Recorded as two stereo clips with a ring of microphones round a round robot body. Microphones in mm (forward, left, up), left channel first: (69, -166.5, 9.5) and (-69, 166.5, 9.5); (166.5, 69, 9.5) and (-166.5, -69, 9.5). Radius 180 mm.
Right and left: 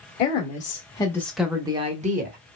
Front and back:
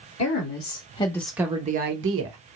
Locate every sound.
0.2 s a woman speaking: 15° right, 1.1 m; by 2.4 s 170° left, 1.0 m